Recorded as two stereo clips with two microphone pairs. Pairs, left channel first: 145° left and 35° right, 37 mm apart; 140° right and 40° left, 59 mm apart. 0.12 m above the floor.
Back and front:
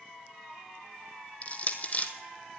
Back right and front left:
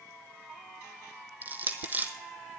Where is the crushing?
100° left, 0.9 m.